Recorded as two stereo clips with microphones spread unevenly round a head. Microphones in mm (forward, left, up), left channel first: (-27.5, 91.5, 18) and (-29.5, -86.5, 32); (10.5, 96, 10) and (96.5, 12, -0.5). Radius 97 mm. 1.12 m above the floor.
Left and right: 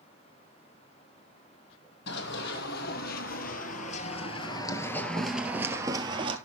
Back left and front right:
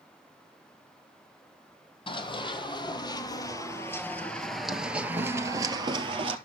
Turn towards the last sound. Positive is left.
turn(degrees=-55)